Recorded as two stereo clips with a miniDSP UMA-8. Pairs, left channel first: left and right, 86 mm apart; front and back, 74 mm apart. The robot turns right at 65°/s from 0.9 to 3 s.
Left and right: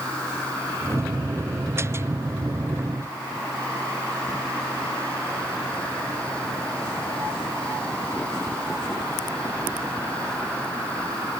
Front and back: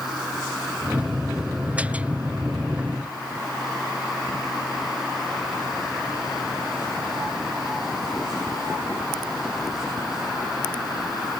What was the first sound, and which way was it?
Only background noise.